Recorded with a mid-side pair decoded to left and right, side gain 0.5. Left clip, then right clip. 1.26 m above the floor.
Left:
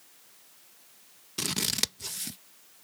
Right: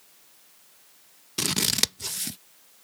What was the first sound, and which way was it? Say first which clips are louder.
Scissors: right 5 dB; 30° right.